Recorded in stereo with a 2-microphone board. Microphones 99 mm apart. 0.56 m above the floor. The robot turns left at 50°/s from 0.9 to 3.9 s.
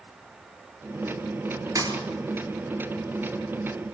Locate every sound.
1.8 s a thud: 35° right (ahead or behind), 4 m; by 2.0 s 45° right (ahead or behind), 4 m